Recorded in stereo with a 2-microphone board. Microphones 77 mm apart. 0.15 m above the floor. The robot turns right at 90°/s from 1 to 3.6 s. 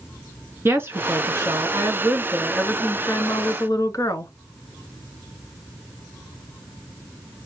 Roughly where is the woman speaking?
Behind right.